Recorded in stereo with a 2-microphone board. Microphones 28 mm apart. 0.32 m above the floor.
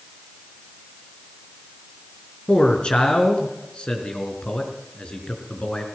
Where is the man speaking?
40° left (ahead or behind), 4.5 m.